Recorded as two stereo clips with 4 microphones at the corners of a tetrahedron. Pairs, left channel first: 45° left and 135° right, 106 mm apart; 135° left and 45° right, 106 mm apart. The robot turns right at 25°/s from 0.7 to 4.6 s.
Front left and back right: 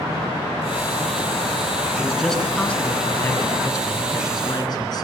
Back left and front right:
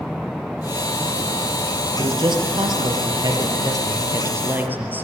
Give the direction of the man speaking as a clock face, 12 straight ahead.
2 o'clock.